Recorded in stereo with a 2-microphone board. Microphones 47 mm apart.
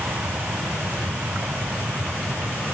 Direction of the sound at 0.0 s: 65° right (ahead or behind).